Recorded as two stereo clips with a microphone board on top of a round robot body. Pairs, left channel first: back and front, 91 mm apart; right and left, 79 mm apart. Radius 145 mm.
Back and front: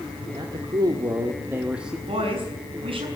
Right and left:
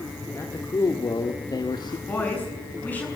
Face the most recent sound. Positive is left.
turn(degrees=-20)